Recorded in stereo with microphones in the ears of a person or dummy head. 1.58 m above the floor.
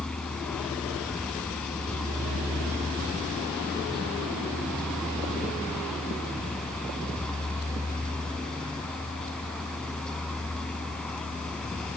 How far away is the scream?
No scream in this recording.